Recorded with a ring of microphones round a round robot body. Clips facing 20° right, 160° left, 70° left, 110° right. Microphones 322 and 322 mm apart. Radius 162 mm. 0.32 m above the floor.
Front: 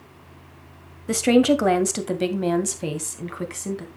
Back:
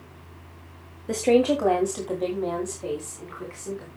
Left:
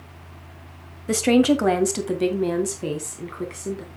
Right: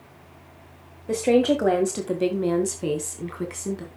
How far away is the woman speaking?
About 1.7 m.